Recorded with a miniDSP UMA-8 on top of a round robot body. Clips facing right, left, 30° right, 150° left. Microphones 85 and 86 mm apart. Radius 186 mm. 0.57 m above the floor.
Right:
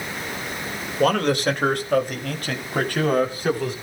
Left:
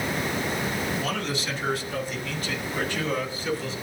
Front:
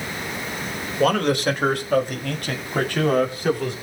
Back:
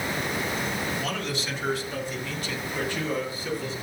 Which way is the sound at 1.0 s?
60° right.